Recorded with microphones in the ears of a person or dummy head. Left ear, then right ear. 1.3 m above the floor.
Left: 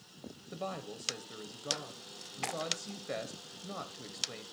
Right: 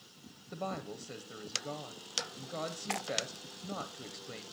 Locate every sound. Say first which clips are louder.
0.5 s a woman speaking: right 1 dB; centre (ahead or behind), 0.6 m